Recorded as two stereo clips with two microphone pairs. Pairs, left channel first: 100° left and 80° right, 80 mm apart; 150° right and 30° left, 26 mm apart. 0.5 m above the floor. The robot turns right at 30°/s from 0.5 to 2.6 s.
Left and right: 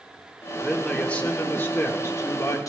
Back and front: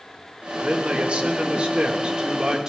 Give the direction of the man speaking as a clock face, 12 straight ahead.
11 o'clock.